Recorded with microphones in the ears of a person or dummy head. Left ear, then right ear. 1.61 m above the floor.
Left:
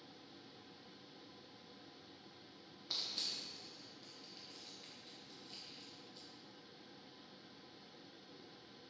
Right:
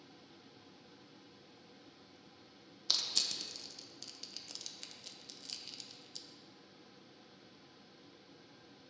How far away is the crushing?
About 0.9 m.